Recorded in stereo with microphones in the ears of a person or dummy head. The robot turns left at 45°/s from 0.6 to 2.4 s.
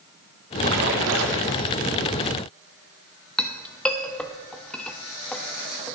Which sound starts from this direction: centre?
A clink, at 3.4 s.